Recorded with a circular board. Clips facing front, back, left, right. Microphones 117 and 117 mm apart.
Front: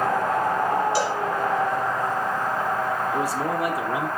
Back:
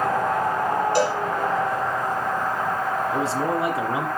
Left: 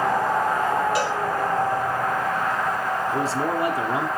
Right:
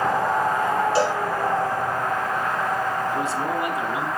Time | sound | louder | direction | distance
0.9 | a cowbell | back 3 dB, right 3 dB | 145° right | 3.5 m
3.1 | a man speaking | back 1 dB, left 1 dB | 130° left | 1.9 m